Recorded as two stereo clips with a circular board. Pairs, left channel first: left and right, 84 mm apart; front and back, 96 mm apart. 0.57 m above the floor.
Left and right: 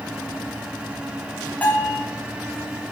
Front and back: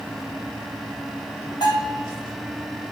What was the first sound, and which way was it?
A bell, 25° left.